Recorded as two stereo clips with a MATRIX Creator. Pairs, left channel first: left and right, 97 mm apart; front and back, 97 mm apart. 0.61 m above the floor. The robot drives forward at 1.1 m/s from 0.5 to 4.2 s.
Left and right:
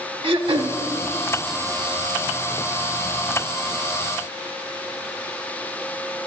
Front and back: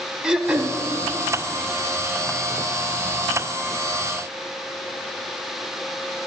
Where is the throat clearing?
100° right, 0.8 m; by 0.8 s 120° right, 0.9 m.